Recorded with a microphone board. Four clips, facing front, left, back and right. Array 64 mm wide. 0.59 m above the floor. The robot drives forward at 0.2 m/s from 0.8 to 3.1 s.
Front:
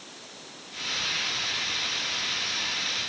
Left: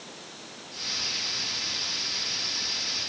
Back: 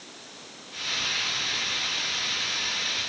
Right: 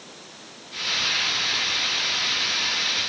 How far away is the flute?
I don't hear a flute.